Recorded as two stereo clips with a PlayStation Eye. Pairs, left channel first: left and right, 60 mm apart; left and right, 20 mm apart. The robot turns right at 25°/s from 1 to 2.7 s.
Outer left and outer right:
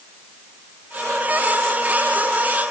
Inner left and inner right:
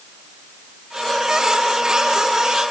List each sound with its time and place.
Only background noise.